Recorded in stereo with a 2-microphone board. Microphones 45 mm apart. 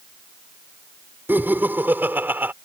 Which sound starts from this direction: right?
Laughter, at 1.3 s.